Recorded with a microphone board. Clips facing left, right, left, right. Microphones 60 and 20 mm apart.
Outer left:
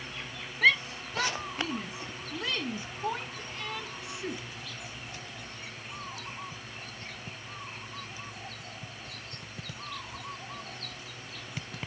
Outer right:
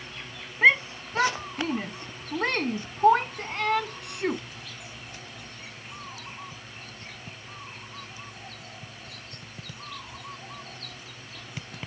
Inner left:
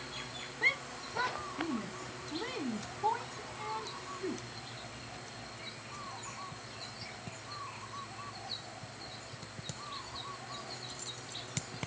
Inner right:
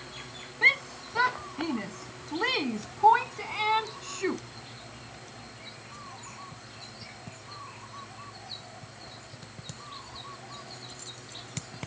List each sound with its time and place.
0.6 s a shout: 30° right (ahead or behind); by 4.4 s 65° right (ahead or behind)